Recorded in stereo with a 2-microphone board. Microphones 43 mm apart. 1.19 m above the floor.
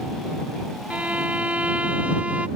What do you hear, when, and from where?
0.9 s a violin: 30° right (ahead or behind)